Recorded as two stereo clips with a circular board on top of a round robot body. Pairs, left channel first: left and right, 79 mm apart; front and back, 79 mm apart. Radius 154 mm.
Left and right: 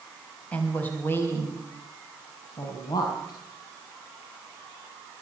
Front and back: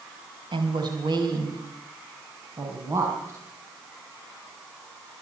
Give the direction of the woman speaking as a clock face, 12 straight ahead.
7 o'clock.